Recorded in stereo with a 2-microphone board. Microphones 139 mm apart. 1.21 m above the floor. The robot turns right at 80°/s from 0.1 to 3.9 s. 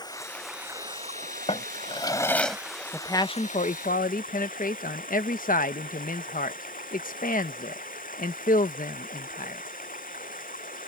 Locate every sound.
0.0 s running water: 150° left; by 10.9 s 95° left
1.5 s a drawer: 95° left; by 2.6 s straight behind
2.9 s a man speaking: 10° left; by 9.6 s 85° left